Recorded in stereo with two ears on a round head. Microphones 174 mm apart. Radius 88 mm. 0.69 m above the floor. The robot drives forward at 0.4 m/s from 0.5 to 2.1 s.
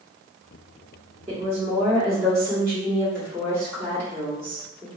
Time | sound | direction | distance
1.3 | a woman speaking | 15° right (ahead or behind) | 1.2 m